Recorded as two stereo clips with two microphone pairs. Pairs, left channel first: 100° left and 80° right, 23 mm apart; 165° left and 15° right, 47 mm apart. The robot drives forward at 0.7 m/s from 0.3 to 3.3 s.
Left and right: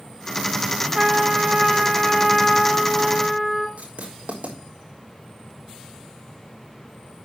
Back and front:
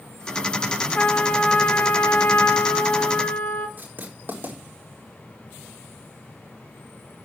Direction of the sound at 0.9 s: 140° right.